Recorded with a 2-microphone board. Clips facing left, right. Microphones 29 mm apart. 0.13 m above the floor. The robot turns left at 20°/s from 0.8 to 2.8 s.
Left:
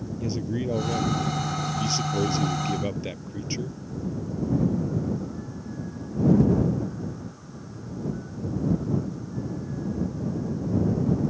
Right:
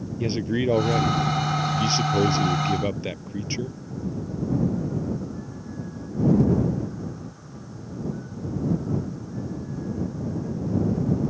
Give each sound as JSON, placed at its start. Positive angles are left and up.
{"t": 0.2, "sound": "a man speaking", "azimuth_deg": -120}